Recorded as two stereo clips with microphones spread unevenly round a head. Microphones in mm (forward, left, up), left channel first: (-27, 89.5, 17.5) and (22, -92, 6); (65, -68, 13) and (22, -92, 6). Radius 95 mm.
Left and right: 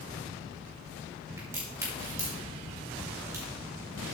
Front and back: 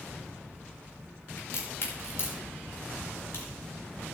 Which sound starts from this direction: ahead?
A crack, at 1.4 s.